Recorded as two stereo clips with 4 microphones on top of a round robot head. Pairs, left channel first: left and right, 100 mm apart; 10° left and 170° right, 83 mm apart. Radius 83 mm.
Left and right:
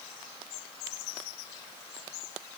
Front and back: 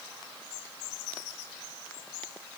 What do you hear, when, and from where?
Only background noise.